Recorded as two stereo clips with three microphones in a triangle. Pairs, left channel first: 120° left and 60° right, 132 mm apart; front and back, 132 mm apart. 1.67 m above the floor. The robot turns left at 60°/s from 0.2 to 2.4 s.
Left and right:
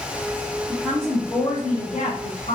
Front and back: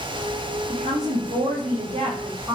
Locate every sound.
0.7 s a woman speaking: 140° right, 1.2 m; by 2.6 s 120° left, 1.2 m